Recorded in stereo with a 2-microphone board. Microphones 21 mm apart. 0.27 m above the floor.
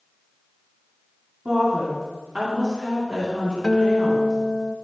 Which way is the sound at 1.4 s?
50° right (ahead or behind).